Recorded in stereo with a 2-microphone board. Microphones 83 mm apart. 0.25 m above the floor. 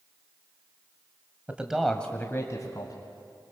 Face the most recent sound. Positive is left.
turn(degrees=60)  # may be behind; listen again after turning